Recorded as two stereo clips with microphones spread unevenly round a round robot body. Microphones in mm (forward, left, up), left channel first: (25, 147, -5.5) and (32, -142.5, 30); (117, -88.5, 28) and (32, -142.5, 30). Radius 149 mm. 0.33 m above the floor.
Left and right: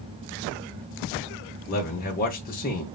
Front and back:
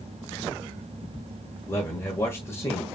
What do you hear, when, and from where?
1.7 s a man speaking: 80° left, 1.1 m